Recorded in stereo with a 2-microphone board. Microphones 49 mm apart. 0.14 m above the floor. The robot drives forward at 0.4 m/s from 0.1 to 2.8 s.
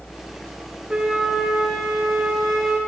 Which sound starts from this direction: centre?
A flute, at 0.9 s.